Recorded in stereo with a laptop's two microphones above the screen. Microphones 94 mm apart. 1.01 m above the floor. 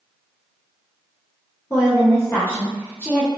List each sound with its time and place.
1.7 s a woman speaking: 25° left (ahead or behind), 0.7 m